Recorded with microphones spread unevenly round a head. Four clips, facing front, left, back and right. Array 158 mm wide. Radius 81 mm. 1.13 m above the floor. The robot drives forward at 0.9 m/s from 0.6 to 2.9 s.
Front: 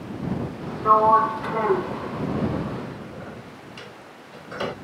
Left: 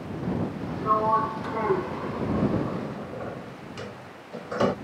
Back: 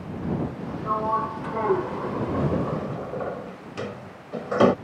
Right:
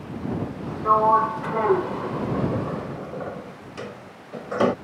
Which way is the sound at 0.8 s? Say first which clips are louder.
Right 5 dB, front 9 dB; 25° right.